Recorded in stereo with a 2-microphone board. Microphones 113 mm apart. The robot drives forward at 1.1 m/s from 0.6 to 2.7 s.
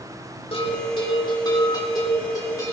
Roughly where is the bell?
Left.